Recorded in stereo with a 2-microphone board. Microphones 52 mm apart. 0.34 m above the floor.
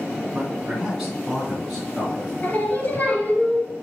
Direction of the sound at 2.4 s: 35° left (ahead or behind).